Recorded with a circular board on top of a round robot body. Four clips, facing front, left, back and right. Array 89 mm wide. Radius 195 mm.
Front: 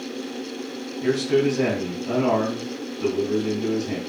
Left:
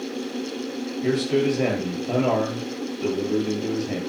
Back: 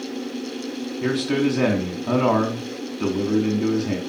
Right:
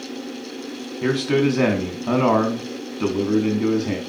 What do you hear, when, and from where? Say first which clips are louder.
1.0 s a man speaking: right 2 dB, front 1 dB; 115° right, 5 m